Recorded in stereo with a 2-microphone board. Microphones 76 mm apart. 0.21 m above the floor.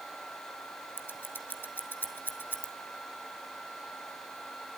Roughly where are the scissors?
Left.